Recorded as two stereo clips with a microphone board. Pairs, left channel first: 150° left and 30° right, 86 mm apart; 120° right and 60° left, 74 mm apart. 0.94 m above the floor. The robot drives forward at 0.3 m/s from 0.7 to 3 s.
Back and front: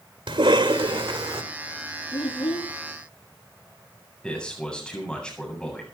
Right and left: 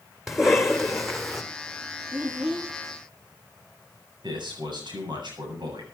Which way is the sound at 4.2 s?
70° left.